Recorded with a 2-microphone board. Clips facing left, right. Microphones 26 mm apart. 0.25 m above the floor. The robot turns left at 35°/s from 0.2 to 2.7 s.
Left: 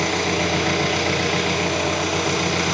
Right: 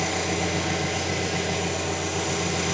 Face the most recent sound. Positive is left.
turn(degrees=50)